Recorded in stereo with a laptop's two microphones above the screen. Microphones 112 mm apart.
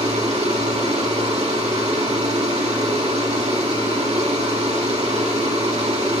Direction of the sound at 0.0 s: 65° right (ahead or behind).